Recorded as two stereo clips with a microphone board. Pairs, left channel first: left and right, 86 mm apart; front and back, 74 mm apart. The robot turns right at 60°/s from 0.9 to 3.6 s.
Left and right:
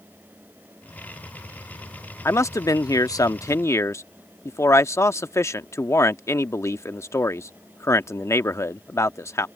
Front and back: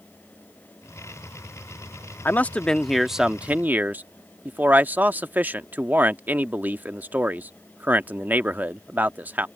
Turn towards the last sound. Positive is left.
turn(degrees=130)